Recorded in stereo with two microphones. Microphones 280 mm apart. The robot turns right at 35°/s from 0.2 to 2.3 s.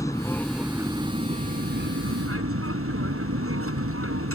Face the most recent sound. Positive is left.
turn(degrees=-120)